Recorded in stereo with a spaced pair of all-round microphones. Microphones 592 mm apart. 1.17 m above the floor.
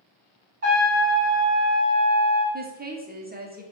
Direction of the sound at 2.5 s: 15° right (ahead or behind).